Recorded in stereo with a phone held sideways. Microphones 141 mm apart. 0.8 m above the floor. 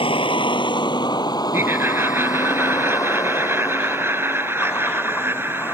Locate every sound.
0.0 s a vehicle: 35° left (ahead or behind); by 5.7 s 15° left (ahead or behind)
1.5 s laughter: 15° right (ahead or behind)